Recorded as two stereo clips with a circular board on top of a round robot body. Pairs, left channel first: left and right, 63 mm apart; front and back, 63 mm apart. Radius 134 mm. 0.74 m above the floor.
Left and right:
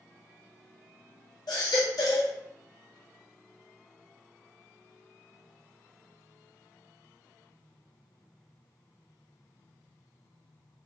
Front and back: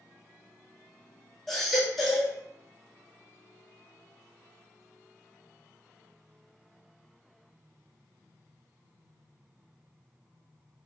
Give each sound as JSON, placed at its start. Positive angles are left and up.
{"t": 1.5, "sound": "a baby crying", "azimuth_deg": 85, "distance_m": 1.4}